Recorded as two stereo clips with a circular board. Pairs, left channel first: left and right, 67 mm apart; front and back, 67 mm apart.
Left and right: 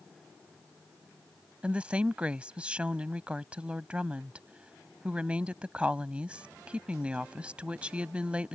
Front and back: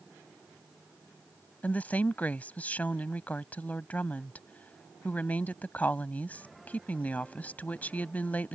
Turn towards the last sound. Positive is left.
turn(degrees=-35)